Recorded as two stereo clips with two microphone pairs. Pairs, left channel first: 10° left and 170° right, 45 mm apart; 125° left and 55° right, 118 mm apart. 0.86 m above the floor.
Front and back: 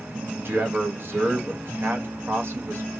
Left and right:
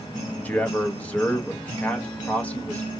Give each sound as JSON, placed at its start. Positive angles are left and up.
{"t": 0.4, "sound": "a man speaking", "azimuth_deg": -160, "distance_m": 1.2}